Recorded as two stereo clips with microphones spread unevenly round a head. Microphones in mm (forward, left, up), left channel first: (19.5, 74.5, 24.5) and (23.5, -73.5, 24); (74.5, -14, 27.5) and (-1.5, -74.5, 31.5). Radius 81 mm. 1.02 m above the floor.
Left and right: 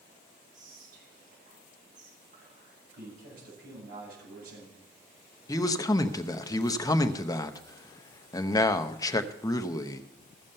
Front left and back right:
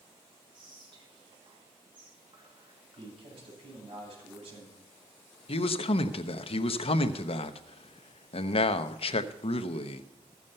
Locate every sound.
0.5 s whispering: 110° right, 1.5 m
3.0 s a man speaking: 115° right, 7 m
5.5 s a man speaking: 25° left, 0.9 m